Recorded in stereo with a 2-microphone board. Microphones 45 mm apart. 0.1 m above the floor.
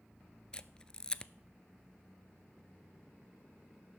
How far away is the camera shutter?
About 0.5 m.